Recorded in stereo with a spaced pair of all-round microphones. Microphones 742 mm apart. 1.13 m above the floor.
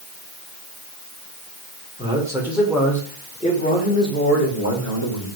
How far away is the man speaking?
About 4 m.